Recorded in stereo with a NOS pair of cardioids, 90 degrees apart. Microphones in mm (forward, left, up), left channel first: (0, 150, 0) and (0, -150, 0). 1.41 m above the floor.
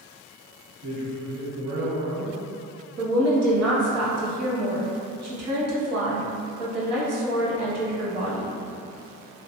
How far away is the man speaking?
About 1.2 m.